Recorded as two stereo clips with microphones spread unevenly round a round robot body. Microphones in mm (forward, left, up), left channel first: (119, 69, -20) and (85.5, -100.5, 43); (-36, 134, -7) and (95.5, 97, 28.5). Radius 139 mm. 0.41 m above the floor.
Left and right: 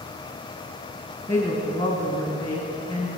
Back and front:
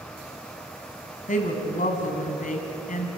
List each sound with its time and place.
1.3 s a woman speaking: 150° left, 3 m